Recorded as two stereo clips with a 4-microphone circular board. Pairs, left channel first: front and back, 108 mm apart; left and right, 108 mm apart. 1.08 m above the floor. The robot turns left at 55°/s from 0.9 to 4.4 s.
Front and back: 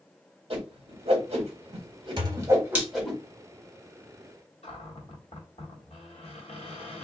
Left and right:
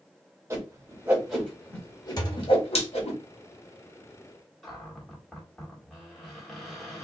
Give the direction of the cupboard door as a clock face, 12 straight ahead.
12 o'clock.